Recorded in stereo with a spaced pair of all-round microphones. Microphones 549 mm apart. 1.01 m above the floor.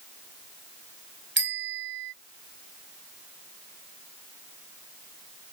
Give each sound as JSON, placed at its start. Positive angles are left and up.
{"t": 1.4, "sound": "a bicycle bell", "side_deg": -20}